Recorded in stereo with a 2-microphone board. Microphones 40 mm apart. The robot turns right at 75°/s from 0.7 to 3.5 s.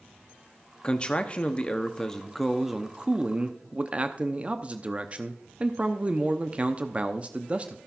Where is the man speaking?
25° left (ahead or behind), 0.7 m; by 7.8 s 30° right (ahead or behind), 0.7 m.